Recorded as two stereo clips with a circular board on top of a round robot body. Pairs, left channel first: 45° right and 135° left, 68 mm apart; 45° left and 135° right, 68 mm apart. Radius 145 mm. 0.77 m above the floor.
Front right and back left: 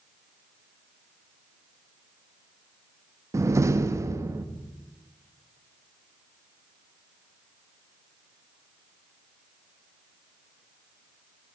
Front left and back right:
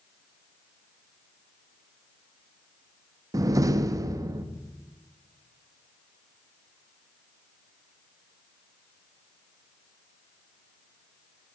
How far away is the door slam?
About 0.7 m.